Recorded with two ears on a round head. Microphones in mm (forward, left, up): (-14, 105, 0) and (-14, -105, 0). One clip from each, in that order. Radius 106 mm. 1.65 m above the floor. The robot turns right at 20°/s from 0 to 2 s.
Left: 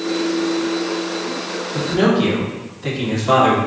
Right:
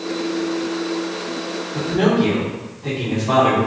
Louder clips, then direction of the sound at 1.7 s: Left 1 dB; 55° left (ahead or behind).